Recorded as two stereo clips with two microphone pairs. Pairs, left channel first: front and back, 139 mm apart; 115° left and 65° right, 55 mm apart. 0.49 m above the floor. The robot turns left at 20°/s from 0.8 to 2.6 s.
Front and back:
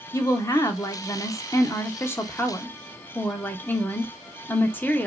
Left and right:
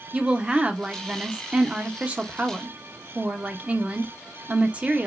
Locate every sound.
0.1 s a woman speaking: 25° right, 0.8 m; by 5.1 s 60° right, 0.8 m